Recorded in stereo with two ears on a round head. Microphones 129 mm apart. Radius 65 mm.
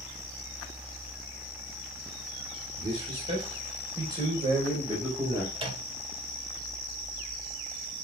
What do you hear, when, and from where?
2.8 s a man speaking: 45° right (ahead or behind), 4 m; by 5.5 s 20° right (ahead or behind), 4.5 m
5.5 s a microwave: 40° right (ahead or behind), 2.5 m